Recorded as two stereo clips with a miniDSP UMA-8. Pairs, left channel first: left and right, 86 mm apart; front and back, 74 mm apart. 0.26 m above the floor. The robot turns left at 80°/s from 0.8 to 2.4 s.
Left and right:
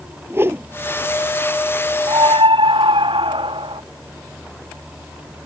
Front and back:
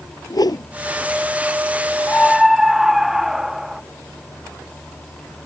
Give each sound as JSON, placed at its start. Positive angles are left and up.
{"t": 0.3, "sound": "a whoosh", "azimuth_deg": -30}
{"t": 2.1, "sound": "a scream", "azimuth_deg": -70}